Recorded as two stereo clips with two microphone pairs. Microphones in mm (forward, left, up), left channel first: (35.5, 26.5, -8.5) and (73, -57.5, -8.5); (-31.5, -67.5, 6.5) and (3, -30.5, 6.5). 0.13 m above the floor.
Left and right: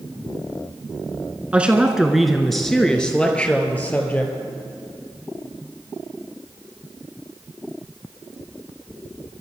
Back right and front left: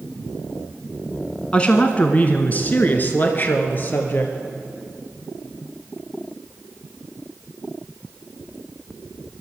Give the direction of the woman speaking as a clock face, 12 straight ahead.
4 o'clock.